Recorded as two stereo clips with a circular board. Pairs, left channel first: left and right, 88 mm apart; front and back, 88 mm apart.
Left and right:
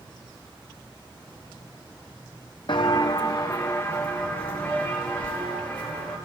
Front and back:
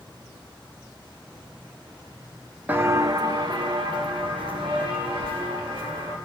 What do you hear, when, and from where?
2.7 s footsteps: 110° left, 0.7 m; by 6.2 s 165° left, 4.5 m